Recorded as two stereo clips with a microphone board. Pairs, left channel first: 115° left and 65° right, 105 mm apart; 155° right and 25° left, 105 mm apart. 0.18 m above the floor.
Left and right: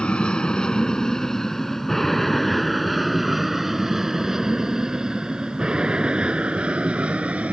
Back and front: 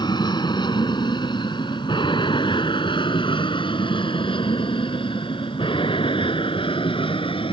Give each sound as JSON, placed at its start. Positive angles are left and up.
{"t": 0.0, "sound": "an aircraft", "azimuth_deg": -170}